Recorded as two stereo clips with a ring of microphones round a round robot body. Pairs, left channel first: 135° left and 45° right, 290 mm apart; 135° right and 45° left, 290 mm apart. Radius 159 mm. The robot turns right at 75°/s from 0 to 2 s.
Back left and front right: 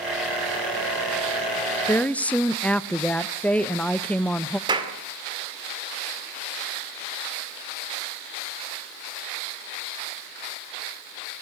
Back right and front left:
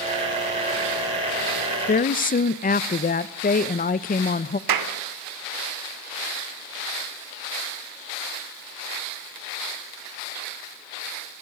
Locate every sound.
1.9 s a woman speaking: 155° right, 0.6 m; by 4.6 s 145° right, 0.6 m
4.7 s a clap: 30° left, 2.5 m